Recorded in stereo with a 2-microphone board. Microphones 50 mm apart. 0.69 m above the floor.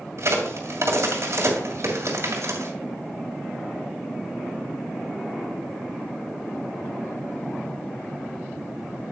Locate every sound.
0.2 s a crack: 60° right (ahead or behind), 2.5 m